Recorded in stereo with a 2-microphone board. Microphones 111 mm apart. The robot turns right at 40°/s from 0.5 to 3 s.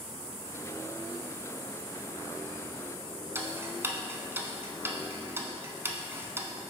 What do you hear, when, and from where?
3.4 s ticking: 20° right (ahead or behind), 0.6 m